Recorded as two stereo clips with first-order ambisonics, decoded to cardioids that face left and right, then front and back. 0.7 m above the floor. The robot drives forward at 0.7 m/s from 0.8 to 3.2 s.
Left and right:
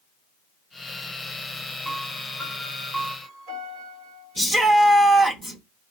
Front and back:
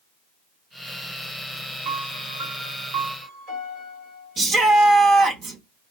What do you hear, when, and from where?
1.9 s a piano: 170° right, 3 m; by 4.4 s 175° right, 3.5 m
4.4 s a shout: 175° left, 0.7 m